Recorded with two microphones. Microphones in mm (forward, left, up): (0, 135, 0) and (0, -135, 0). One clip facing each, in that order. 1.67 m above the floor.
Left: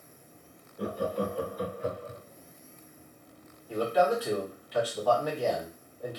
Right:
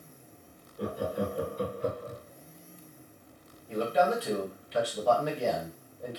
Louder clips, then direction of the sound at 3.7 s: Left 1 dB; 25° right (ahead or behind).